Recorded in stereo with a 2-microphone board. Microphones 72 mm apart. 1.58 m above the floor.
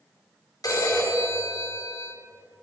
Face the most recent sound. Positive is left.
turn(degrees=65)  # may be behind; listen again after turning